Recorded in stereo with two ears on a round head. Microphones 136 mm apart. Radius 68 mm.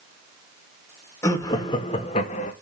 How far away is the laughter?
About 2 m.